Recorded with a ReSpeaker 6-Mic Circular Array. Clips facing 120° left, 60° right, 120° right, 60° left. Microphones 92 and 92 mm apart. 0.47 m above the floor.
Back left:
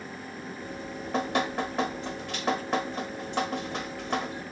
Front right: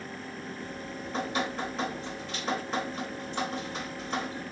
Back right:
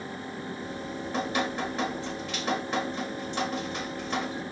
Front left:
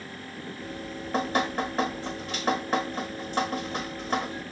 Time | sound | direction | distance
0.6 | dripping | 105° left | 0.9 m